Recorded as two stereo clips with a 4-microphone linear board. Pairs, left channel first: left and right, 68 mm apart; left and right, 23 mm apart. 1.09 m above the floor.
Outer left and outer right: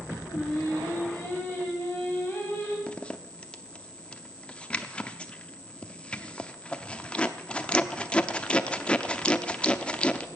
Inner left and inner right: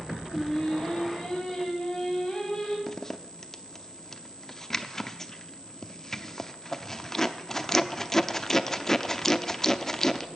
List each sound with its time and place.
0.2 s singing: 25° left (ahead or behind), 4 m
2.9 s a zipper: 15° left (ahead or behind), 0.7 m